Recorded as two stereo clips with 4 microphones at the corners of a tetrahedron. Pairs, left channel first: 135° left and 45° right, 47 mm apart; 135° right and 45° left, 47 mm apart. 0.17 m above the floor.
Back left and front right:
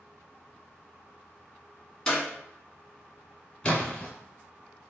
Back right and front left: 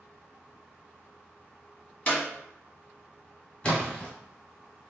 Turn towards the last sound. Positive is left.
turn(degrees=-170)